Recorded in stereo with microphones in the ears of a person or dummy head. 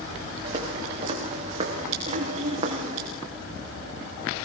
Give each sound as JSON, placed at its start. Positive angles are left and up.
{"t": 0.4, "sound": "footsteps", "side_deg": -25, "distance_m": 7.0}
{"t": 2.1, "sound": "throat clearing", "side_deg": -25, "distance_m": 6.0}